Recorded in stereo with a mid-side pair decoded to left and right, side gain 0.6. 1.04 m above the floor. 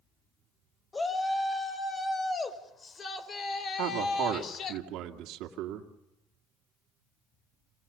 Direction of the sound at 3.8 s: 70° right.